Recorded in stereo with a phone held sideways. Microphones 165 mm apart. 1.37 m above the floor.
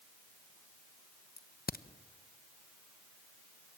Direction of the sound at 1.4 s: 65° left (ahead or behind).